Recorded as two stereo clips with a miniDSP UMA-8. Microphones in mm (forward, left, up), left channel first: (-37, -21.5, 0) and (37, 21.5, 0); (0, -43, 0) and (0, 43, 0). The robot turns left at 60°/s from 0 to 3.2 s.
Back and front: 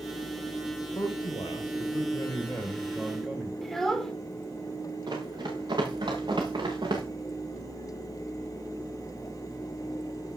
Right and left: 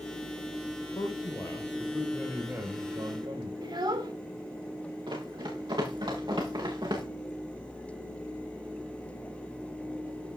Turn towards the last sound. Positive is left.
turn(degrees=60)